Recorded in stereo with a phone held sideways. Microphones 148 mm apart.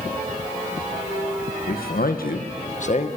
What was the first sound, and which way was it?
A man speaking, 75° left (ahead or behind).